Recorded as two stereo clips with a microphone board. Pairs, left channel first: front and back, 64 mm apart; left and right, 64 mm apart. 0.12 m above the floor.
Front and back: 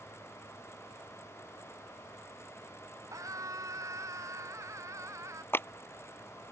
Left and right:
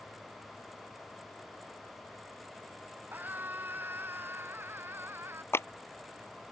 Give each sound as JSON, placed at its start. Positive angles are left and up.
{"t": 3.1, "sound": "a scream", "azimuth_deg": -145}
{"t": 5.5, "sound": "a clap", "azimuth_deg": 50}